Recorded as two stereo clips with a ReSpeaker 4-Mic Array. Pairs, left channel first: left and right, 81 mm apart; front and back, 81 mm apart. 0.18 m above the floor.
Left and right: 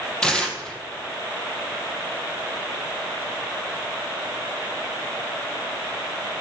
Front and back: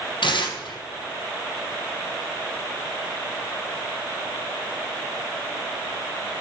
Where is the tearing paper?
10° left, 1.5 m.